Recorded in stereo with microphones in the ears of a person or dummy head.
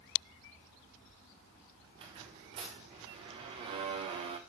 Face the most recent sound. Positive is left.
turn(degrees=-25)  # may be behind; listen again after turning